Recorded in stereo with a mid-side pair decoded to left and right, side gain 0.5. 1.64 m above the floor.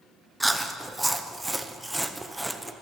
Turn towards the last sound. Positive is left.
turn(degrees=-5)